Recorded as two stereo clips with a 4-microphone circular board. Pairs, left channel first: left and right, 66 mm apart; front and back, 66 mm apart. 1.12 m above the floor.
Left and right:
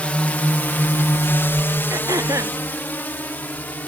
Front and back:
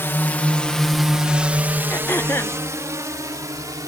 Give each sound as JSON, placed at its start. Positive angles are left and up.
{"t": 0.0, "sound": "a drone", "azimuth_deg": 30}
{"t": 1.9, "sound": "throat clearing", "azimuth_deg": -55}